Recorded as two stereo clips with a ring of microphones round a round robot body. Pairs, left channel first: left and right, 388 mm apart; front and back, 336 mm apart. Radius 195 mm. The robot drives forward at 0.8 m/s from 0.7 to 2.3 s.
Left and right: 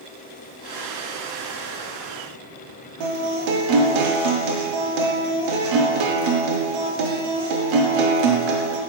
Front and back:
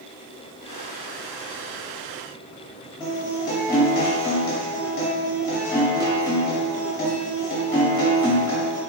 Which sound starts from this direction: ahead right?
A guitar, at 3.0 s.